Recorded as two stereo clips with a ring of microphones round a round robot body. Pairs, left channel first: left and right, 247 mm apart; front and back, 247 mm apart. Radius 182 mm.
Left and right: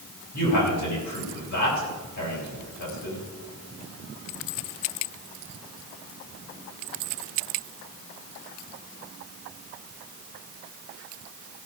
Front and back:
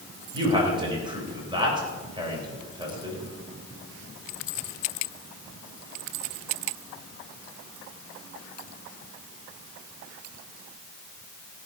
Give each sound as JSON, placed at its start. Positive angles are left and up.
{"t": 0.3, "sound": "a man speaking", "azimuth_deg": 110, "distance_m": 3.5}